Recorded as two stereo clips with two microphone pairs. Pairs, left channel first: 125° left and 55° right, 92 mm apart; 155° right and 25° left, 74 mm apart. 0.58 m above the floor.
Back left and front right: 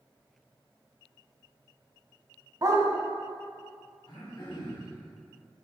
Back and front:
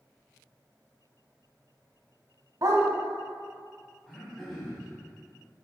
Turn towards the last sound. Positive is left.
turn(degrees=125)